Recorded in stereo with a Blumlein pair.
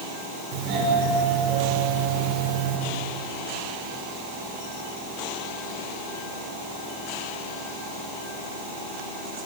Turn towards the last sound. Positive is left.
turn(degrees=-40)